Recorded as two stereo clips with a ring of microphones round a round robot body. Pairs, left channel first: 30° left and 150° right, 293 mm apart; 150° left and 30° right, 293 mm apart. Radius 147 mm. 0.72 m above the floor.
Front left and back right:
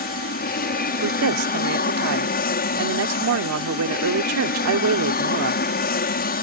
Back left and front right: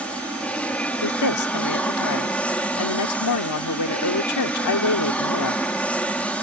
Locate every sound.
0.0 s an aircraft: 65° left
1.0 s a woman speaking: 175° left